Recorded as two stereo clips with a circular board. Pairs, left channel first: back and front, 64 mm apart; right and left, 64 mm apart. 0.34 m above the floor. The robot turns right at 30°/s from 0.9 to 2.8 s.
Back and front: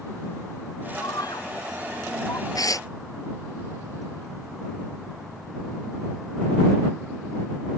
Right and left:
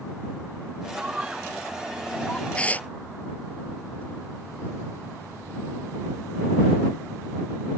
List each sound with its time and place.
1.0 s a scream: 160° left; by 2.5 s 160° right
2.5 s tearing paper: 165° right; by 2.9 s 155° right